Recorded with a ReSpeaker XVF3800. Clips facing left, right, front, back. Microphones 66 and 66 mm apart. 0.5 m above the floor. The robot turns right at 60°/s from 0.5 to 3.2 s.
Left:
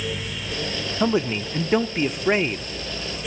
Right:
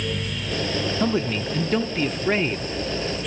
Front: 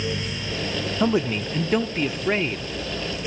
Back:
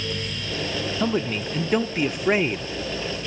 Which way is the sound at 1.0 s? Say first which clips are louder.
Left 4 dB, front 3 dB; 50° left.